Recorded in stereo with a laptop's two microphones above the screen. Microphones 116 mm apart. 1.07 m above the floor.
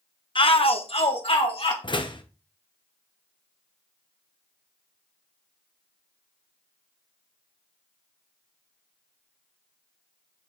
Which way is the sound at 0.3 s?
45° left (ahead or behind).